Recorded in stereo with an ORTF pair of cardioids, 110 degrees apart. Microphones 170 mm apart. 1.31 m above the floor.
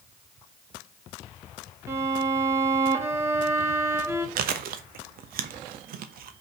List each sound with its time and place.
1.9 s a violin: 15° right, 1.8 m
4.4 s chewing: 65° right, 1.0 m